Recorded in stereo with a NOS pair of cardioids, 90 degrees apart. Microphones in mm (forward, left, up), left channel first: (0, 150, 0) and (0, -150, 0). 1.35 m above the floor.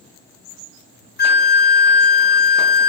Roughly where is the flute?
Ahead left.